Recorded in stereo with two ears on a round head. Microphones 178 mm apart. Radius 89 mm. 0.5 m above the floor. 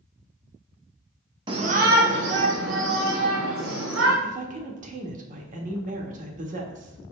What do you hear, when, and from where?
1.5 s a shout: 25° right (ahead or behind), 1.0 m; by 4.1 s 75° right (ahead or behind), 4.5 m
4.2 s a woman speaking: 40° right (ahead or behind), 1.3 m